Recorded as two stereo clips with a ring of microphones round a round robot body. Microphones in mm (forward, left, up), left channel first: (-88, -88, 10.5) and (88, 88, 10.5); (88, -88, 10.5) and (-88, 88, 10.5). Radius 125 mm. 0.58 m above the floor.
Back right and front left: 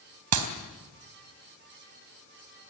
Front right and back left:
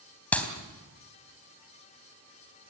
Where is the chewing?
No chewing in this recording.